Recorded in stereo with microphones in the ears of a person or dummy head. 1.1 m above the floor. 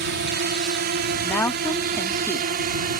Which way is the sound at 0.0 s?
50° right (ahead or behind).